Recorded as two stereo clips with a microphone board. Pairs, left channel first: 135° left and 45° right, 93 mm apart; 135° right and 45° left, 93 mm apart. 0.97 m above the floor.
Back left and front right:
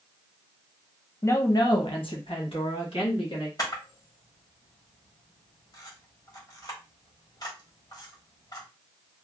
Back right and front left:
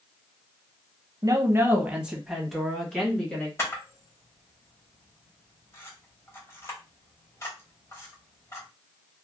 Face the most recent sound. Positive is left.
turn(degrees=170)